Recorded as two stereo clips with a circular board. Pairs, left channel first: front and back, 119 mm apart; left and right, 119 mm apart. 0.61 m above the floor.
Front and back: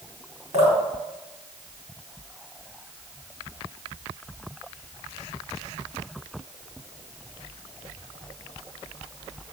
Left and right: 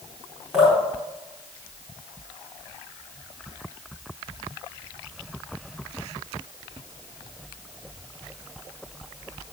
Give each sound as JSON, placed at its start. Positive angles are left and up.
{"t": 0.5, "sound": "dripping", "azimuth_deg": -175, "distance_m": 4.0}